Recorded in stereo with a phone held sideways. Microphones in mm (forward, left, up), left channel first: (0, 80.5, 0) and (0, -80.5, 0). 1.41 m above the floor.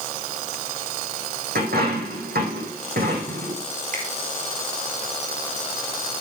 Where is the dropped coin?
75° right (ahead or behind), 6 m.